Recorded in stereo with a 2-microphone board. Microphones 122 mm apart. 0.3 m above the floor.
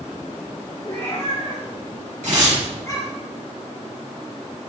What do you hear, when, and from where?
0.8 s a cat meowing: 45° left (ahead or behind), 3.5 m; by 3.1 s 25° left (ahead or behind), 2.5 m
2.2 s tearing paper: 70° right (ahead or behind), 3 m